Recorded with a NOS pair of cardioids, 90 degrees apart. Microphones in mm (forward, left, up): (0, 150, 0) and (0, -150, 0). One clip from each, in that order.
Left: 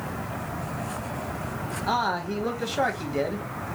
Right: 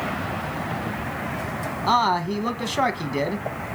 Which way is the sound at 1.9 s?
30° right.